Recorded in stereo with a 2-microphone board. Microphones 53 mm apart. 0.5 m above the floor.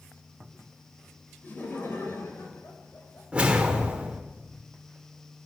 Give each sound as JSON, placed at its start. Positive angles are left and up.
{"t": 1.4, "sound": "laughter", "side_deg": 35, "distance_m": 2.5}
{"t": 3.3, "sound": "a whoosh", "side_deg": -25, "distance_m": 1.5}